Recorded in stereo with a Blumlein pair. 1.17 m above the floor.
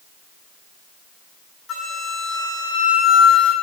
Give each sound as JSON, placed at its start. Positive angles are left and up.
{"t": 1.7, "sound": "a flute", "azimuth_deg": 30, "distance_m": 2.5}